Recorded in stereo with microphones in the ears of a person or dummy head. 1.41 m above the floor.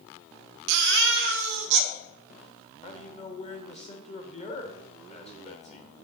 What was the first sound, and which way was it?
A baby crying, 60° right (ahead or behind).